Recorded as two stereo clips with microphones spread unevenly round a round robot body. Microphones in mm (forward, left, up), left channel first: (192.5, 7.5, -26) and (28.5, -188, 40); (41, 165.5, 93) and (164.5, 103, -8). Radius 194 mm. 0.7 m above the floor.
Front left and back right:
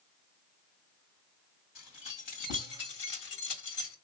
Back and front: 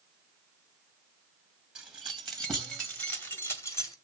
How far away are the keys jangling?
About 2.5 m.